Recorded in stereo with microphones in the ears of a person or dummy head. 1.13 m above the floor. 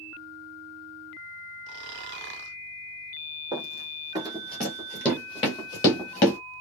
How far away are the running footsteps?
About 1.3 m.